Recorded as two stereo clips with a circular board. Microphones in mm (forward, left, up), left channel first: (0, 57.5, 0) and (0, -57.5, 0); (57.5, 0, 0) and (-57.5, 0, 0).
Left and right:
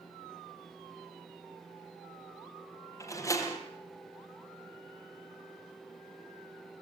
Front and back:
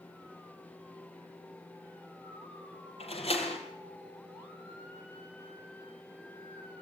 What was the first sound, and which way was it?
A door slam, 30° left.